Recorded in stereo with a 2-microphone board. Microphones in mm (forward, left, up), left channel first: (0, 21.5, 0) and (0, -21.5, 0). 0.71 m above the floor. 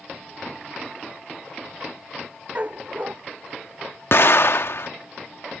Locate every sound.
2.5 s a dog barking: 35° right (ahead or behind)
4.1 s an explosion: 60° left (ahead or behind)